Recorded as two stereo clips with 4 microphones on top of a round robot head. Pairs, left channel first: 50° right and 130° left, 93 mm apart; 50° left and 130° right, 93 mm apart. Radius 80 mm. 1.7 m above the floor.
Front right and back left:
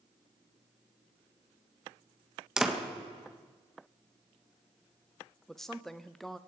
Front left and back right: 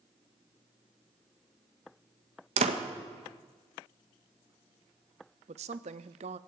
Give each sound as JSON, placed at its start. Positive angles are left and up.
{"t": 2.6, "sound": "a door slam", "azimuth_deg": -150, "distance_m": 1.7}
{"t": 5.5, "sound": "a woman speaking", "azimuth_deg": -140, "distance_m": 0.7}